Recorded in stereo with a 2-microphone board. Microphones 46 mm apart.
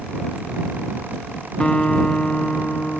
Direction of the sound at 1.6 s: 20° left (ahead or behind).